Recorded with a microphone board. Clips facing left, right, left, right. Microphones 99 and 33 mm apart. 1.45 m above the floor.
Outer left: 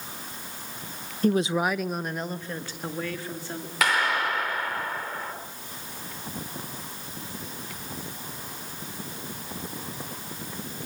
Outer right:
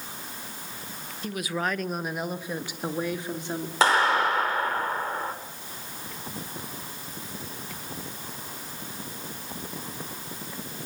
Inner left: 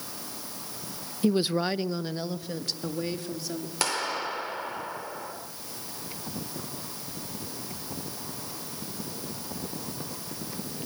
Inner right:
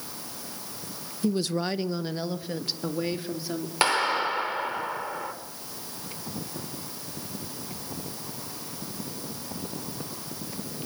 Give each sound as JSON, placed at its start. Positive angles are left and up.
{"t": 1.2, "sound": "a woman speaking", "side_deg": 45, "distance_m": 0.6}
{"t": 3.8, "sound": "a clap", "side_deg": -30, "distance_m": 4.5}